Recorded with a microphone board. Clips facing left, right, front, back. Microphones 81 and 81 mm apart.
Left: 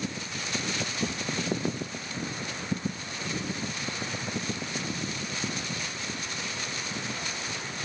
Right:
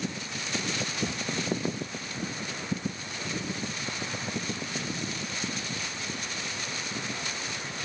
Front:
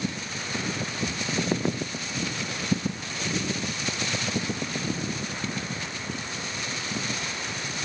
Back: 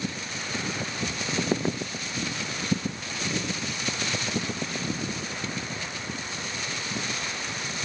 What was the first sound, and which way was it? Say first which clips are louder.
A cupboard door: even, front 1 dB; 95° right.